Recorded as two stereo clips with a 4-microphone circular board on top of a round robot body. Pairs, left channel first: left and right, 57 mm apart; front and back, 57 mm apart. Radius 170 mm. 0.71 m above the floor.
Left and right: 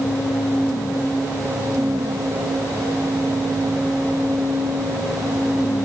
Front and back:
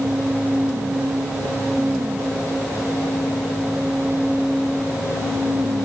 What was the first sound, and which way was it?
Only background noise.